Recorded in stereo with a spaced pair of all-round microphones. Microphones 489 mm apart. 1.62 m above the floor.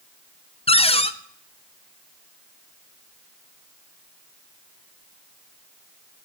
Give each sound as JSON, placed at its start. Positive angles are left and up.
{"t": 0.7, "sound": "a cupboard door", "side_deg": 10, "distance_m": 0.5}